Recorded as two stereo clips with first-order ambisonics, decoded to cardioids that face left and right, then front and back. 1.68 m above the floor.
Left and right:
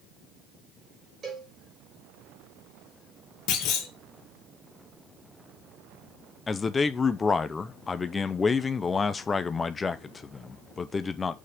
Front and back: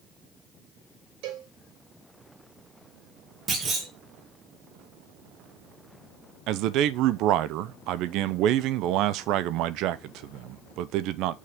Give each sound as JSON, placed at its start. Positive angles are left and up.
{"t": 1.2, "sound": "a cowbell", "azimuth_deg": -155, "distance_m": 4.5}
{"t": 3.5, "sound": "a clunk", "azimuth_deg": 115, "distance_m": 2.5}
{"t": 6.5, "sound": "a man speaking", "azimuth_deg": 160, "distance_m": 0.6}